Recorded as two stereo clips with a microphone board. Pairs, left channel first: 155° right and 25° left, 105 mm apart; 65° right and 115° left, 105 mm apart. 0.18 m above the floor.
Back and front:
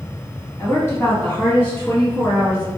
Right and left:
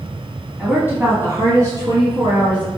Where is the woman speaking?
Straight behind, 1.2 m; by 2.7 s 130° left, 1.8 m.